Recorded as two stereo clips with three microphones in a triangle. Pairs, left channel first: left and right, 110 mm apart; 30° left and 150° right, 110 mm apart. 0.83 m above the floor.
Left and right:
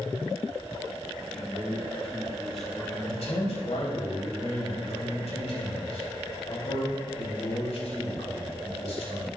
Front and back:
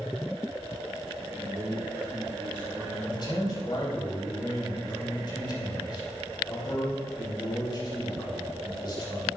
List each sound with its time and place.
1.3 s a man speaking: 175° left, 1.8 m
3.0 s a man speaking: 75° left, 3.5 m